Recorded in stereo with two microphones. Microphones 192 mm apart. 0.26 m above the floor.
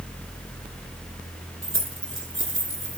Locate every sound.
1.6 s keys jangling: 80° right, 5.5 m; by 3.0 s 85° right, 5.5 m